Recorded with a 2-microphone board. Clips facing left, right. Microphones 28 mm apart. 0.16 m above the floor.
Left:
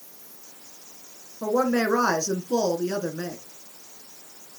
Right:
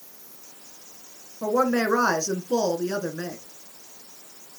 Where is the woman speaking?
30° right (ahead or behind), 1.8 m.